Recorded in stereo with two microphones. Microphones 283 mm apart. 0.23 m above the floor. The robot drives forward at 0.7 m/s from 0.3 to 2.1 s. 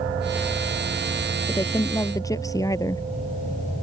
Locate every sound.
1.5 s a woman speaking: 15° left (ahead or behind); by 3.0 s 10° left (ahead or behind)